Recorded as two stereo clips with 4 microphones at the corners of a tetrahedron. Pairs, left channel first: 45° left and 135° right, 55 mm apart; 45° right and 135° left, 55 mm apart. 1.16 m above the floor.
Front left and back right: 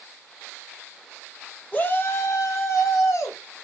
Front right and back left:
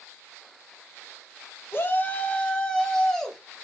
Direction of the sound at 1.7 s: 10° right.